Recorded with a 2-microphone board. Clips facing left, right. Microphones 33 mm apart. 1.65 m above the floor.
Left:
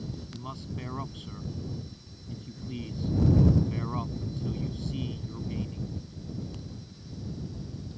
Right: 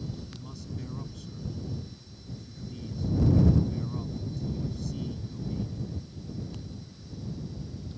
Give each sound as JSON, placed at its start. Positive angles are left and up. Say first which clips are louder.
{"t": 0.3, "sound": "a man speaking", "louder": "left 2 dB", "side_deg": 45}